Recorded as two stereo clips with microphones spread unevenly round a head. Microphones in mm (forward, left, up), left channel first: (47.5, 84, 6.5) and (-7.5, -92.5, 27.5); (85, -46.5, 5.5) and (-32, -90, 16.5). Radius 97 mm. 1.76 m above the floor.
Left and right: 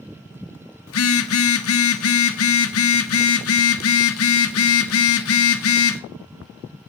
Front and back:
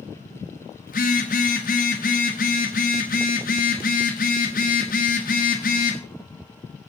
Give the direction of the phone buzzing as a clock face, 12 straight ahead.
10 o'clock.